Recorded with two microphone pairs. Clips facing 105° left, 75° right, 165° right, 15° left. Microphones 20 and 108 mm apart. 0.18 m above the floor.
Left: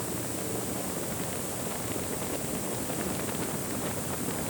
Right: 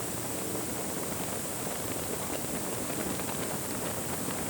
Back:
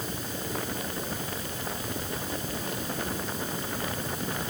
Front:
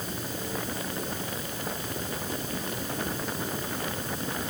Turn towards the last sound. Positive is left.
No sound to turn to.